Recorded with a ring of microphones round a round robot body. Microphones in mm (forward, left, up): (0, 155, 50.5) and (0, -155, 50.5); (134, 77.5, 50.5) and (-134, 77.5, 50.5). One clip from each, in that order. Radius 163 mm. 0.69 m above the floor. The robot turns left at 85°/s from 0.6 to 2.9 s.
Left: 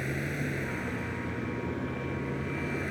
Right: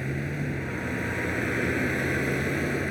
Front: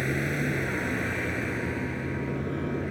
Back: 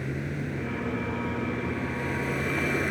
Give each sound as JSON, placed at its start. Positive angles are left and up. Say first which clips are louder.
{"t": 0.0, "sound": "a vehicle", "louder": "right 1 dB, front 6 dB", "azimuth_deg": 20}